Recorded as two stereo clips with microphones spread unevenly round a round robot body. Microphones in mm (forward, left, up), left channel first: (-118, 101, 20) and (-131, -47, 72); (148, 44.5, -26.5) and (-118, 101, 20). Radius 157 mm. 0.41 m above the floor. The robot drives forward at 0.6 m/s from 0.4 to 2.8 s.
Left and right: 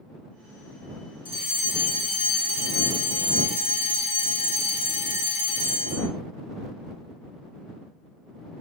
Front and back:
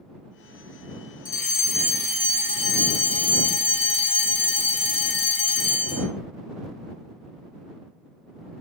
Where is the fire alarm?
40° left, 4.5 m; by 6.1 s 50° left, 3.5 m.